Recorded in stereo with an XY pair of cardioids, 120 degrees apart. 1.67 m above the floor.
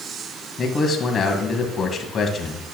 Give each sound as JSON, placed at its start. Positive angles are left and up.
{"t": 0.6, "sound": "a man speaking", "azimuth_deg": 35, "distance_m": 1.3}